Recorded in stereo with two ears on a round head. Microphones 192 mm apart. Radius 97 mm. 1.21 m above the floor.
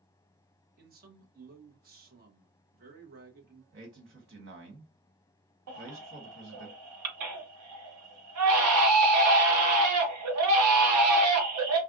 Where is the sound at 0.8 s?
45° right (ahead or behind), 1.2 m.